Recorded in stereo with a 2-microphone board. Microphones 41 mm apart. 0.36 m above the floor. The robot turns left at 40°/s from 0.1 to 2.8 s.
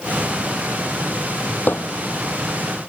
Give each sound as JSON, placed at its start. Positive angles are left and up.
{"t": 1.7, "sound": "hammering", "side_deg": 50}